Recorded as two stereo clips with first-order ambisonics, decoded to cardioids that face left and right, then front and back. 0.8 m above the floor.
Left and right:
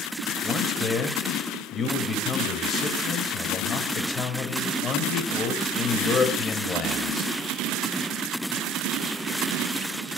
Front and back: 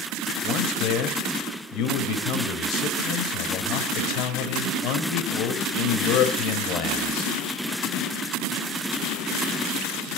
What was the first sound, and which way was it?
A man speaking, 25° left.